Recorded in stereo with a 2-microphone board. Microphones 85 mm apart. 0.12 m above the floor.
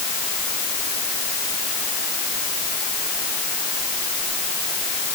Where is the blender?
I don't hear a blender.